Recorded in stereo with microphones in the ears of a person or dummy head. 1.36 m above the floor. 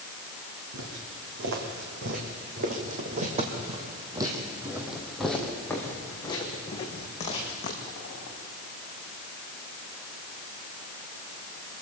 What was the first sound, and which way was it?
Footsteps, 65° right (ahead or behind).